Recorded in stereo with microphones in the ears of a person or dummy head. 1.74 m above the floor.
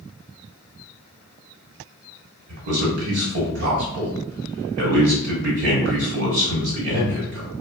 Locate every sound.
2.5 s a man speaking: 60° right (ahead or behind), 1.2 m